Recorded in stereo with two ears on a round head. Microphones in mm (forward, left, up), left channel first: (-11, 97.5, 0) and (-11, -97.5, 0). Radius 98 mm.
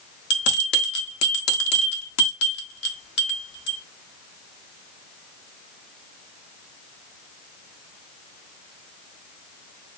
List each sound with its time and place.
0.3 s a bell: 55° left (ahead or behind), 1.4 m